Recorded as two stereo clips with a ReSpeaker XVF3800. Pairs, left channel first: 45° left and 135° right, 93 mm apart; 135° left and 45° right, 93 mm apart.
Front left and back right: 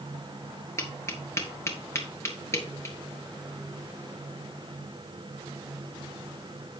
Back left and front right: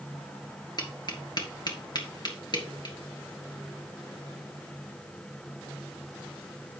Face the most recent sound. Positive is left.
turn(degrees=100)